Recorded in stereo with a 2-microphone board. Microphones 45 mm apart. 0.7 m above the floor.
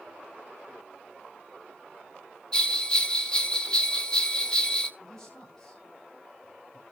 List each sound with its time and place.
2.5 s a bell: 20° left (ahead or behind), 1.3 m
5.0 s a man speaking: 10° left (ahead or behind), 6 m